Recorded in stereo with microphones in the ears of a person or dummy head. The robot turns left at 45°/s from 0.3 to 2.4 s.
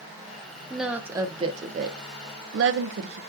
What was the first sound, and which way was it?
A woman speaking, centre (ahead or behind).